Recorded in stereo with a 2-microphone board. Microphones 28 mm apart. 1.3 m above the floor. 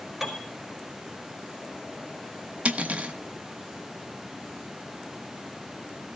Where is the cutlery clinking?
50° right (ahead or behind), 1.1 m.